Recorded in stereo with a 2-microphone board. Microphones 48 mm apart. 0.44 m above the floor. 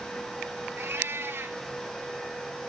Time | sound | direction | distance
0.8 | a cat meowing | 65° right (ahead or behind) | 0.7 m